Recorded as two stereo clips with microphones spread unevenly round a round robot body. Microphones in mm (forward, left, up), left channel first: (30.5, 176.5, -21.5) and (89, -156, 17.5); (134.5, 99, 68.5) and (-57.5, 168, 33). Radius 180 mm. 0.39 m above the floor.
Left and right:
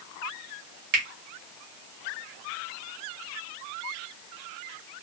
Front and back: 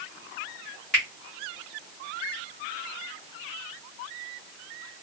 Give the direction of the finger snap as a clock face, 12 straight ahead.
4 o'clock.